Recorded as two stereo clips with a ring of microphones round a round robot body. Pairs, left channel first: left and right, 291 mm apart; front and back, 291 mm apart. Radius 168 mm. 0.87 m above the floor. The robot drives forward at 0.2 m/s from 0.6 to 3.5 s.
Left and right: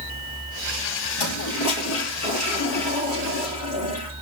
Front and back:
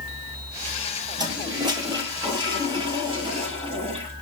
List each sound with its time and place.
1.2 s a toilet flushing: 105° left, 5 m; by 4.1 s 110° left, 5.5 m